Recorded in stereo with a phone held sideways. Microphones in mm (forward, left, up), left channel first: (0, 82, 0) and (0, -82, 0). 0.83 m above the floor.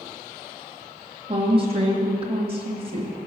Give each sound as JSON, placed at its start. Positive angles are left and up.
{"t": 1.3, "sound": "a woman speaking", "side_deg": -35, "distance_m": 1.3}